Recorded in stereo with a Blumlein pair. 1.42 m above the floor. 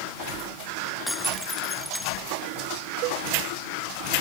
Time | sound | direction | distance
1.1 | breaking glass | straight ahead | ?
3.0 | a cowbell | 40° right | ?